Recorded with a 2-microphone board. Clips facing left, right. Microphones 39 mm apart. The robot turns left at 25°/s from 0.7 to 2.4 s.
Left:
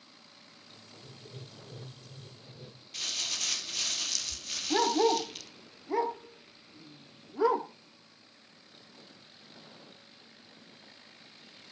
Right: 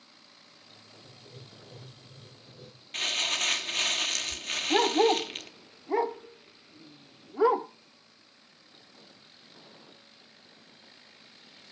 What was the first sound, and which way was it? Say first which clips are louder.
Writing: left 3 dB; 50° left.